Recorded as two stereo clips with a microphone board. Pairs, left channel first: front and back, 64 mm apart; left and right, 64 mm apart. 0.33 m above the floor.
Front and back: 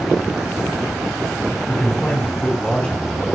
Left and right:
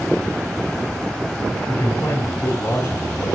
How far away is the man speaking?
About 2.5 m.